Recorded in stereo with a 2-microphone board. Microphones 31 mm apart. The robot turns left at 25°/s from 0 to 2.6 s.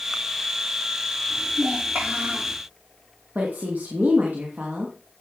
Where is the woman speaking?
60° right (ahead or behind), 2.5 m.